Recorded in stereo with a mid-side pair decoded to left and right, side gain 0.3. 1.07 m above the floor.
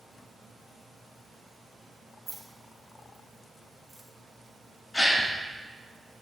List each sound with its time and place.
2.3 s keys jangling: 35° right, 1.9 m; by 4.1 s 5° right, 1.3 m
4.9 s a gasp: 35° left, 1.3 m